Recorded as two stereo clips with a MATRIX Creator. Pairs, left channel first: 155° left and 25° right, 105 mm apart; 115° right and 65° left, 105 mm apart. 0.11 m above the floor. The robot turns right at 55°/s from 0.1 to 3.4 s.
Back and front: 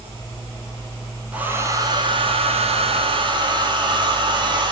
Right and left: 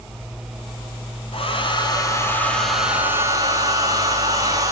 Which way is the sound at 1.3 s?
100° right.